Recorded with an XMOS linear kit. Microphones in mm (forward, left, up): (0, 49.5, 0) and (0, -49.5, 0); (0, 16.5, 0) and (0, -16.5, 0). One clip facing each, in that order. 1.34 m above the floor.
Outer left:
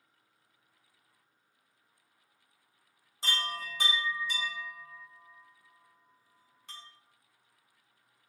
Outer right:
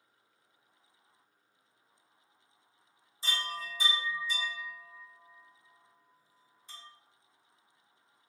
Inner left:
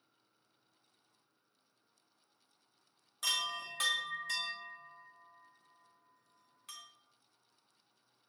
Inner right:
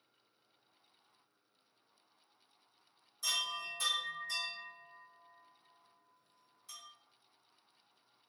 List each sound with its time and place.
3.2 s a chime: 65° left (ahead or behind), 1.4 m